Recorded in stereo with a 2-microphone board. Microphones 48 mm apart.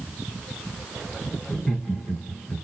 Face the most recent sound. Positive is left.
turn(degrees=20)  # may be behind; listen again after turning